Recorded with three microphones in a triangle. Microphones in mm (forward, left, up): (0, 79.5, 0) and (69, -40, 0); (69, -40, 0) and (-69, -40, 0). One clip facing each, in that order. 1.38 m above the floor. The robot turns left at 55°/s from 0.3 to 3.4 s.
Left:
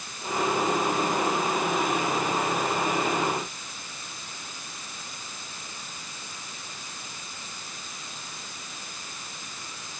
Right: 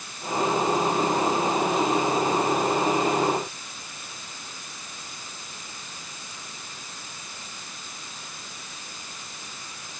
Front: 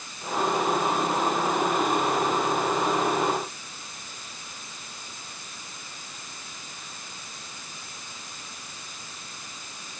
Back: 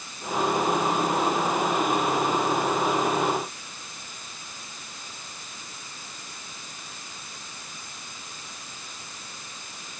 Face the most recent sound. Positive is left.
No sound to turn to.